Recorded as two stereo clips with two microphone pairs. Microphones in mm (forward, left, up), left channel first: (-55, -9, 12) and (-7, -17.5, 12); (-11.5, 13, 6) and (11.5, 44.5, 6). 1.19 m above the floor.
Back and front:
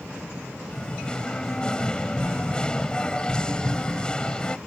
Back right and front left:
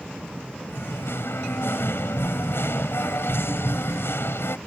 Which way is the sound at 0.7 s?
115° right.